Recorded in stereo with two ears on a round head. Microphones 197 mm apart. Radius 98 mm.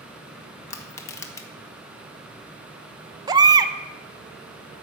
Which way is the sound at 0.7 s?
15° left (ahead or behind).